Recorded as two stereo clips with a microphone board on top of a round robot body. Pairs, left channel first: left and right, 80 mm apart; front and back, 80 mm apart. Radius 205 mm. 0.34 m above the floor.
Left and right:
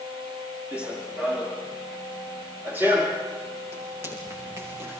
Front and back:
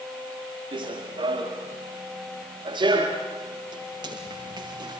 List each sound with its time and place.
0.7 s running footsteps: 165° right, 7 m; by 5.0 s 150° right, 8.5 m